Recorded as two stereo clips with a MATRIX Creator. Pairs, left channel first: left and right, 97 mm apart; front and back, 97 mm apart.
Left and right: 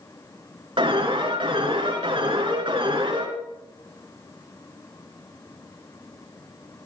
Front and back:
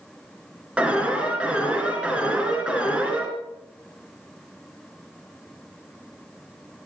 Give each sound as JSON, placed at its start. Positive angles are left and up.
{"t": 0.8, "sound": "an alarm", "azimuth_deg": -105, "distance_m": 2.5}